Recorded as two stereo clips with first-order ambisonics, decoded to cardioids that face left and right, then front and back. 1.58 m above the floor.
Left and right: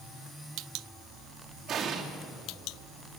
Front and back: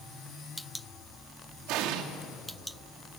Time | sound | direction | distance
1.7 | an explosion | 150° right | 3 m